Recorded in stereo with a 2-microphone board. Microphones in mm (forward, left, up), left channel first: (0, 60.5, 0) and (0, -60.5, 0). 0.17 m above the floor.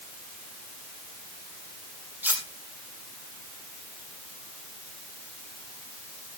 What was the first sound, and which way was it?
Cutlery clinking, 15° right (ahead or behind).